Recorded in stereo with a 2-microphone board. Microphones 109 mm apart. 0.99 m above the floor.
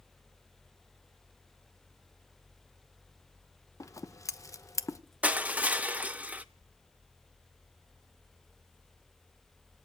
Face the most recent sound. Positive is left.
turn(degrees=-15)  # may be behind; listen again after turning